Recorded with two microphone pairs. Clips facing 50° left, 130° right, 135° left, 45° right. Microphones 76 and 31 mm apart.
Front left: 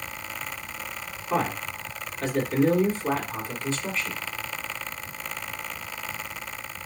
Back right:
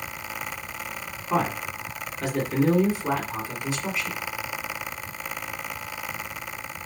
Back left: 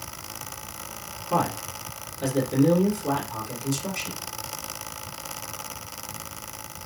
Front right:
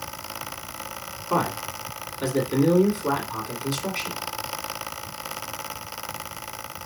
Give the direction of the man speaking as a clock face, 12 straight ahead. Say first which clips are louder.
Back right 1 dB, front right 1 dB; 2 o'clock.